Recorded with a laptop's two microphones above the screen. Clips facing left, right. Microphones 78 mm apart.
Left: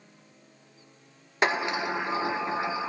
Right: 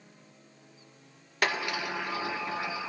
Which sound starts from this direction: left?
A sliding door, at 1.4 s.